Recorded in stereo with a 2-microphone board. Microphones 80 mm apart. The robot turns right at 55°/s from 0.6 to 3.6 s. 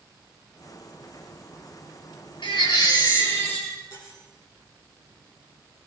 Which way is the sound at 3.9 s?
55° left (ahead or behind).